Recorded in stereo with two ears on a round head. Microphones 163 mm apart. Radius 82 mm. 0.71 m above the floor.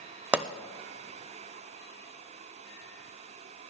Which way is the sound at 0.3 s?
10° right (ahead or behind).